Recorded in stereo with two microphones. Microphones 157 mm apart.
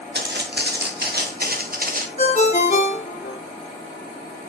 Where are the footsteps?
90° right, 1.8 m; by 2.1 s 55° right (ahead or behind), 1.9 m.